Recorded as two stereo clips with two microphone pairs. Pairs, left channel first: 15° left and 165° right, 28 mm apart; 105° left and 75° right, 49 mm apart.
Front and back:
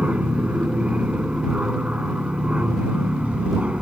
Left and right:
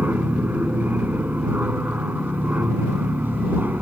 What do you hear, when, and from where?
0.0 s an aircraft: 125° right